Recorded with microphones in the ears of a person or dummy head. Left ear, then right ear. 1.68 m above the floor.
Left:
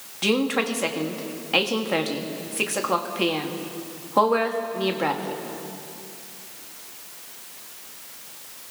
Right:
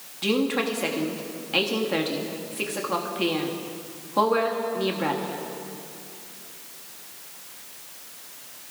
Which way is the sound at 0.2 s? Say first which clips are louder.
Left 2 dB; 20° left (ahead or behind).